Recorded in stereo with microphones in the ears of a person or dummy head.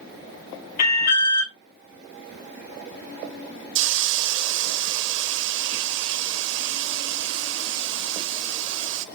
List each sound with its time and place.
0.8 s an alarm: 65° left (ahead or behind), 3 m
3.8 s a hiss: 65° right (ahead or behind), 0.7 m